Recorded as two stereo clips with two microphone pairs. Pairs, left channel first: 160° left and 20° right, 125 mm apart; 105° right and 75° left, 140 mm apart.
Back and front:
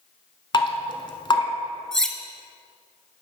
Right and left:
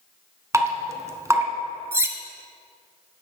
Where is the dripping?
135° left, 0.8 m.